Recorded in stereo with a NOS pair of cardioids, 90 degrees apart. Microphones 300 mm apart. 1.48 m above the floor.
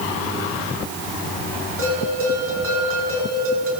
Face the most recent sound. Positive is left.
turn(degrees=-45)